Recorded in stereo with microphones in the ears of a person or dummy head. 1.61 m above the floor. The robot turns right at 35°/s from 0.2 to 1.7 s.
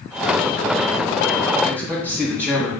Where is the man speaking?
15° right (ahead or behind), 2.5 m.